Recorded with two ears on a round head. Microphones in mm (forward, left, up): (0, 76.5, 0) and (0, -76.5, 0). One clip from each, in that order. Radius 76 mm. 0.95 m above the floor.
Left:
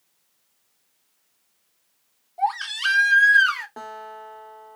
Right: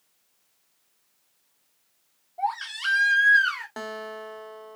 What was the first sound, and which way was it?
A baby crying, 20° left (ahead or behind).